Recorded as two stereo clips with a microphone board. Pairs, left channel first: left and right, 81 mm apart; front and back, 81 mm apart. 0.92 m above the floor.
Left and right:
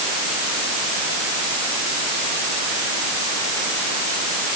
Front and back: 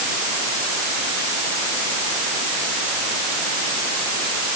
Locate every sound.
Only background noise.